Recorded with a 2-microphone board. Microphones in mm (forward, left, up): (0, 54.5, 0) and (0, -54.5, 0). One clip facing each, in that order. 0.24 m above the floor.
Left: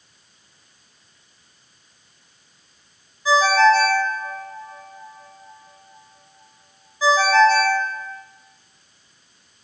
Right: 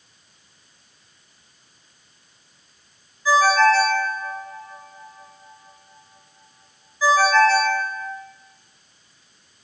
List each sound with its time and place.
3.2 s a ringtone: 20° left (ahead or behind), 0.6 m